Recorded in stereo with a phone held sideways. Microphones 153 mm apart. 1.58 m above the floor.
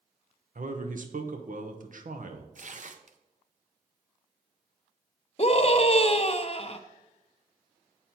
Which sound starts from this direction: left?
A scream, at 5.4 s.